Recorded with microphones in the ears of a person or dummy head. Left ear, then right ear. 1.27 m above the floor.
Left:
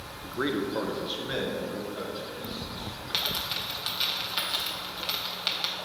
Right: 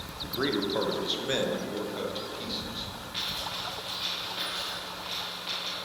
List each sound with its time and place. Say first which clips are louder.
0.2 s a man speaking: even; 10° left (ahead or behind), 0.5 m; by 2.9 s 40° right (ahead or behind), 1.7 m
3.1 s a dropped coin: left 4 dB; 55° left (ahead or behind), 1.4 m